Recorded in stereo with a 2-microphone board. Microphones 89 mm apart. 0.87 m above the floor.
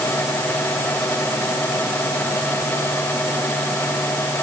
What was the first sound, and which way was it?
Only background noise.